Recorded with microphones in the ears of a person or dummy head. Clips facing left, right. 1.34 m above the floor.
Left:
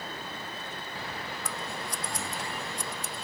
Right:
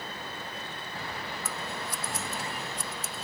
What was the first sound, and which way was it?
Scissors, 5° right (ahead or behind).